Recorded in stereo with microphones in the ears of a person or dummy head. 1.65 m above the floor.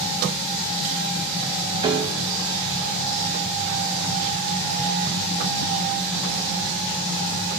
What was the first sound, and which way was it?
A piano, 20° right (ahead or behind).